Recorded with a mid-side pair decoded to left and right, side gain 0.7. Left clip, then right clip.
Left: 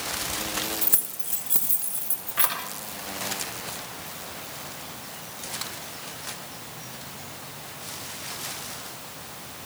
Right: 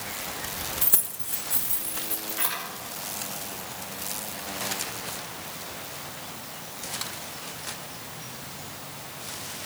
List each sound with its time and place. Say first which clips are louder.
0.8 s keys jangling: even; 5° right, 1.3 m; by 2.6 s 70° left, 3 m